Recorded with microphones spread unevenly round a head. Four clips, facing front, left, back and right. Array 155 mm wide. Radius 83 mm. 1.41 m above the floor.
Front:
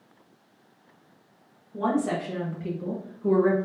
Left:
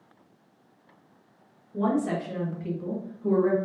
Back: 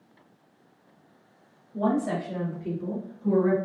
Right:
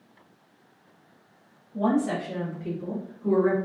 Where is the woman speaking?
50° left, 2 m; by 3.6 s straight ahead, 1.7 m.